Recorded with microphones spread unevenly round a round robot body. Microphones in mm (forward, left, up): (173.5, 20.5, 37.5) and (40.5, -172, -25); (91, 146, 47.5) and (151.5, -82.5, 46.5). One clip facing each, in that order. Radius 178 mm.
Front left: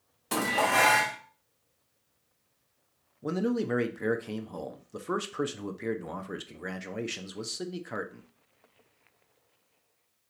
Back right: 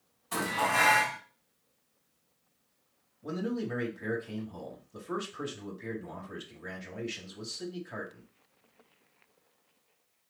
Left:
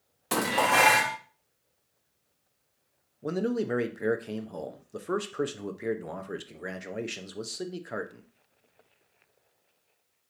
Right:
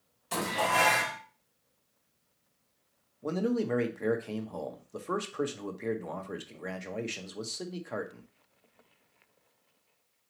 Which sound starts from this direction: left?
Dishes clattering, at 0.3 s.